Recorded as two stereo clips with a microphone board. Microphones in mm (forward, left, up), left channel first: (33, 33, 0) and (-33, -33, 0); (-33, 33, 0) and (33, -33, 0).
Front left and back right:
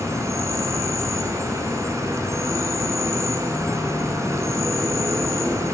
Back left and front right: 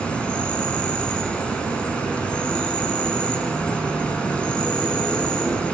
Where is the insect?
155° right, 1.0 m.